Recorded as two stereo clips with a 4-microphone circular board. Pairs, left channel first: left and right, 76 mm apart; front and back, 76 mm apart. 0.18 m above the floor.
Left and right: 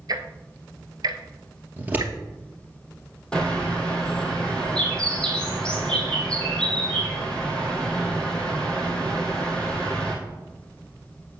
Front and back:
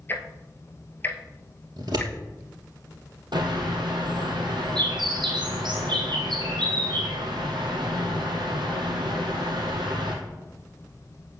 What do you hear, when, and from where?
0.1 s ticking: 60° right, 0.8 m
1.8 s scissors: 155° right, 2.5 m
3.3 s a bird: 170° left, 2 m